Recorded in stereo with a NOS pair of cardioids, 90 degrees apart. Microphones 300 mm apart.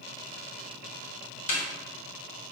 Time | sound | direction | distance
1.5 | a snare drum | 65° left | 1.0 m